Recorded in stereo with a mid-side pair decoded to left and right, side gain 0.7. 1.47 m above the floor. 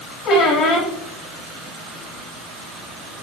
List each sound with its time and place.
0.2 s a squeak: 60° left, 1.6 m